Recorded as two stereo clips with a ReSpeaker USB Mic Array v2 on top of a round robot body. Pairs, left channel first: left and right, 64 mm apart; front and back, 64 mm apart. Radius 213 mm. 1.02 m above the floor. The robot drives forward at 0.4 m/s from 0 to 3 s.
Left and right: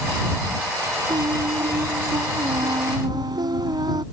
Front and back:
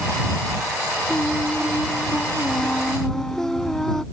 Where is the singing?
75° right; by 4.0 s 85° right.